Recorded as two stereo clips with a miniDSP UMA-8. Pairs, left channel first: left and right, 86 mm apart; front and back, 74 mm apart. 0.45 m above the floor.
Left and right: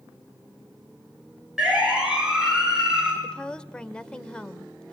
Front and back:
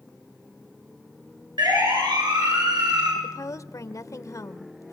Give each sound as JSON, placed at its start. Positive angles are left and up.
{"t": 1.6, "sound": "a siren", "azimuth_deg": -170, "distance_m": 9.0}
{"t": 3.2, "sound": "a woman speaking", "azimuth_deg": 15, "distance_m": 1.3}